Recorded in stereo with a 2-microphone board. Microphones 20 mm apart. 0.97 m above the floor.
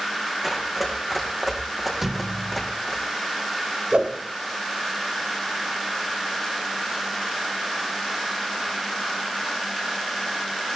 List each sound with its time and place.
0.4 s running footsteps: 5° right (ahead or behind), 4 m; by 3.0 s 15° left (ahead or behind), 3 m
2.0 s a thud: 10° right (ahead or behind), 0.8 m
3.9 s a whoosh: 70° right (ahead or behind), 1.9 m